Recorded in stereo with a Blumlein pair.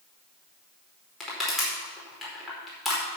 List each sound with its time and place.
1.2 s crushing: 10° left, 4.5 m